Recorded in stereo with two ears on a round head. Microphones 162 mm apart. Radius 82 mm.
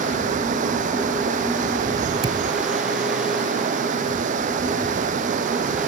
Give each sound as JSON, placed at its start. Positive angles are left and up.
{"t": 0.0, "sound": "running water", "side_deg": -45}
{"t": 2.2, "sound": "a thud", "side_deg": -25}